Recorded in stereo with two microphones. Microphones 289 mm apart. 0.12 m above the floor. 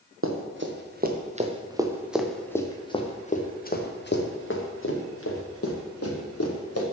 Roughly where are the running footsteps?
Right.